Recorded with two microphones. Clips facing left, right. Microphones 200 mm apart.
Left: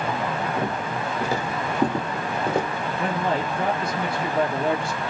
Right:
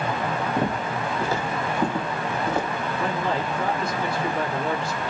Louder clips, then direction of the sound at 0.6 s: Right 1 dB; 20° right (ahead or behind).